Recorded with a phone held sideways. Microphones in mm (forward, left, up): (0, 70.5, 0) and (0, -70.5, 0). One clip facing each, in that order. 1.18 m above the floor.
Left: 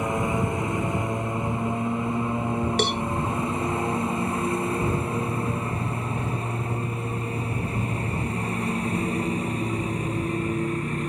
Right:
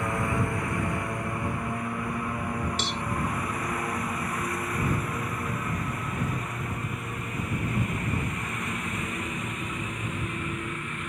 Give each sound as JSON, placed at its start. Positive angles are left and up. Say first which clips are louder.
{"t": 0.0, "sound": "a lawn mower", "louder": "left 3 dB", "side_deg": 20}
{"t": 2.8, "sound": "a cowbell", "louder": "left 8 dB", "side_deg": 80}